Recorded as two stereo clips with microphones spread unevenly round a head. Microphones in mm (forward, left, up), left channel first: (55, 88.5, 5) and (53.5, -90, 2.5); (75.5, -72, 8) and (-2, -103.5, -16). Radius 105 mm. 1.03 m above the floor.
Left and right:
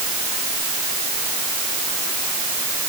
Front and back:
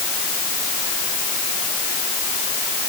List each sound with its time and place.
Only background noise.